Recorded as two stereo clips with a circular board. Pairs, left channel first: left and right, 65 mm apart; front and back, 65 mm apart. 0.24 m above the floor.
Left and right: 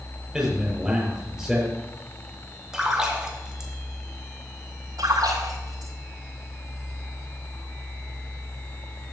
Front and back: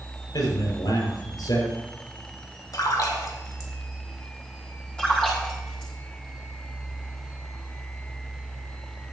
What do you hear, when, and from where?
0.3 s a man speaking: 10° right, 6.5 m
2.7 s a splash: 10° right, 3.5 m
5.0 s a splash: 75° right, 8 m